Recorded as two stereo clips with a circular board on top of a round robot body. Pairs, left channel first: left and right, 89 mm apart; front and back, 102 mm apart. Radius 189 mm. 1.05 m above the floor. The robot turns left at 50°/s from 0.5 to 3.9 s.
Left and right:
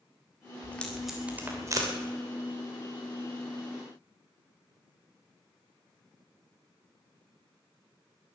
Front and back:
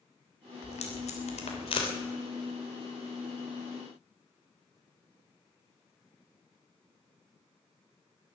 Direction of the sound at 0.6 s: 20° left.